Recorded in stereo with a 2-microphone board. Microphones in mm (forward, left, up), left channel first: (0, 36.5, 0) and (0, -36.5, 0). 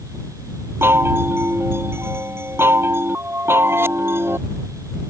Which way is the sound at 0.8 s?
35° right (ahead or behind).